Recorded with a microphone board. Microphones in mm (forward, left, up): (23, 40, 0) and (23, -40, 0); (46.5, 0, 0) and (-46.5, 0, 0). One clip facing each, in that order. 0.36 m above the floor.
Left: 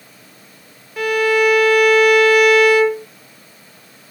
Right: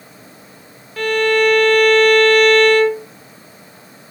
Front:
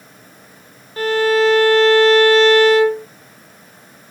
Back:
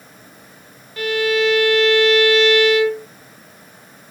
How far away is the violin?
About 0.5 m.